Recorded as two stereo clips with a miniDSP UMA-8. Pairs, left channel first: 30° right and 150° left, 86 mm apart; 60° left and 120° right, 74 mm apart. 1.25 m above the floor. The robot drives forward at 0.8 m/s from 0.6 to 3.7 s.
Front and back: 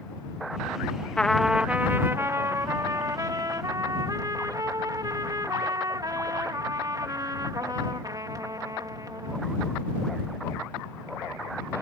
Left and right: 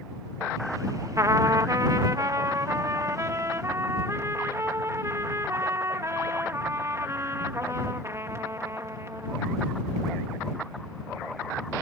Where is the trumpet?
105° right; by 9.4 s 165° right.